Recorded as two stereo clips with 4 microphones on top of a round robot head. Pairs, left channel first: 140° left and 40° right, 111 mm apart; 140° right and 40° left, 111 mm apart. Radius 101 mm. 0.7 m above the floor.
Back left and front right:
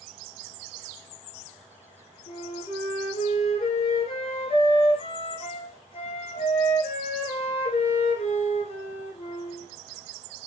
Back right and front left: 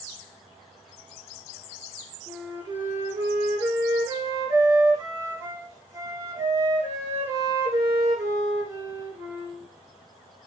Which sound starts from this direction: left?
A flute, at 2.3 s.